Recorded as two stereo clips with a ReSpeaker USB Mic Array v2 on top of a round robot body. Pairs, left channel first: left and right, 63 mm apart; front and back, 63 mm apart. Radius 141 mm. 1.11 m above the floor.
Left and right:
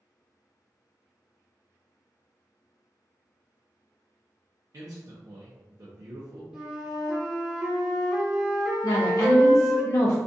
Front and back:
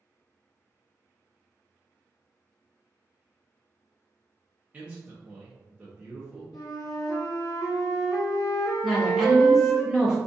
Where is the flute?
10° right, 0.9 m.